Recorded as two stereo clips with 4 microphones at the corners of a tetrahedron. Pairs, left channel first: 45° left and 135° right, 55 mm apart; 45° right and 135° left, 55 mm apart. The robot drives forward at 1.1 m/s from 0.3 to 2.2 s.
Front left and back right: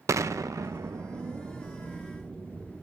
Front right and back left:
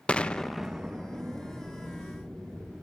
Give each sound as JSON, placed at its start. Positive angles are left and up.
{"t": 0.1, "sound": "an explosion", "azimuth_deg": -115, "distance_m": 0.6}